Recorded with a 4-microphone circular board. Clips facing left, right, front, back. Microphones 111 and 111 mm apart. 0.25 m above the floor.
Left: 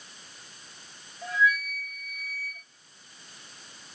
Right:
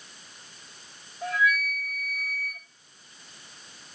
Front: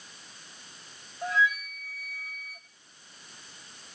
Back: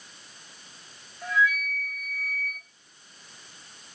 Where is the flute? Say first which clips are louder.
Even, back 2 dB; 65° right, 3 m.